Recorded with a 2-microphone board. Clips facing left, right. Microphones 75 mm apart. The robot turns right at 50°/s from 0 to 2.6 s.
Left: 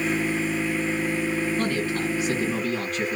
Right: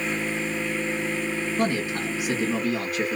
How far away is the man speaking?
About 1.3 m.